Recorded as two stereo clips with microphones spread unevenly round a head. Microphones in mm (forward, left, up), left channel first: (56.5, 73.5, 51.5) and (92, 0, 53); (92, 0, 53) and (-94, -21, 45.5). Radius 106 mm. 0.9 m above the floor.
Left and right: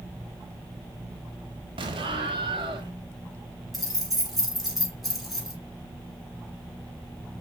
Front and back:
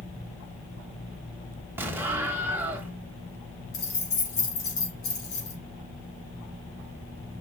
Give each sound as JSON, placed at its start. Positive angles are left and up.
{"t": 1.8, "sound": "an explosion", "azimuth_deg": -95, "distance_m": 1.0}
{"t": 3.7, "sound": "keys jangling", "azimuth_deg": 25, "distance_m": 4.0}